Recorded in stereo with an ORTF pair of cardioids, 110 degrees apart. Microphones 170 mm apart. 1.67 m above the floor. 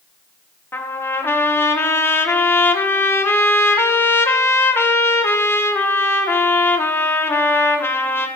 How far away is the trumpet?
About 1.7 m.